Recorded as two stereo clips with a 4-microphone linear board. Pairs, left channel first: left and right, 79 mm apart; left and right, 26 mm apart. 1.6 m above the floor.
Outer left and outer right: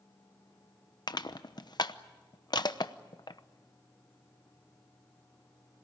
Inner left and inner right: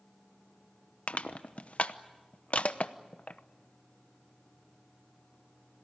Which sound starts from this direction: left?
Crushing, at 1.1 s.